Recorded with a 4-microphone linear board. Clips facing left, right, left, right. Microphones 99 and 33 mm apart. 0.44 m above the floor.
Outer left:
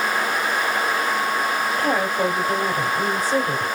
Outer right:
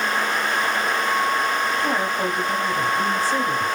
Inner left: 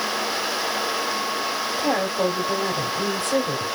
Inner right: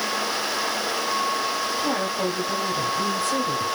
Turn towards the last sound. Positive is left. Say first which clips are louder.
# outer left 2 dB, inner left 6 dB
turn(degrees=40)  # may be behind; listen again after turning